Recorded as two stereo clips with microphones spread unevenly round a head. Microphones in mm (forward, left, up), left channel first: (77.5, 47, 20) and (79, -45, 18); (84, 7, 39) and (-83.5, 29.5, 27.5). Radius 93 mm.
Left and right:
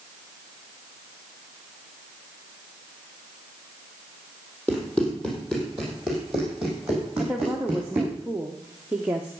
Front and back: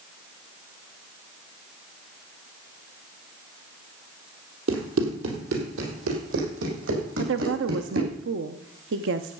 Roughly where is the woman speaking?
Behind.